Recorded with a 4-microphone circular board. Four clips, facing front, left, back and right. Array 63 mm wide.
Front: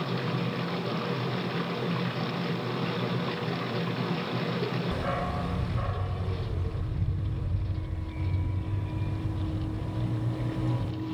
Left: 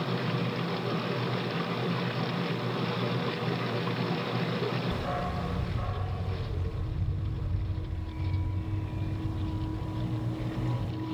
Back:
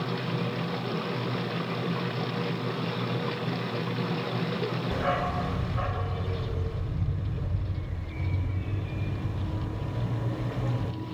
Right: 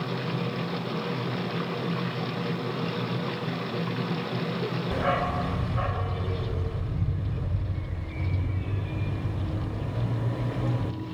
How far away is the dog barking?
About 0.8 m.